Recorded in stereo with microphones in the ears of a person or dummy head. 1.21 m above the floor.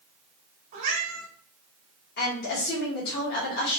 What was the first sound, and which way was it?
A cat meowing, 25° right (ahead or behind).